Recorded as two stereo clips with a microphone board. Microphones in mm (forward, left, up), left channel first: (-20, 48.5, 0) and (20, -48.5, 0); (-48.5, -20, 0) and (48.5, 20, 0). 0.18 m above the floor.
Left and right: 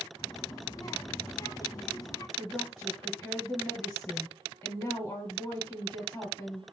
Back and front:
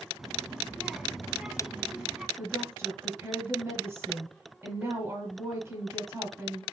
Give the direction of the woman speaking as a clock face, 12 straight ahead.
10 o'clock.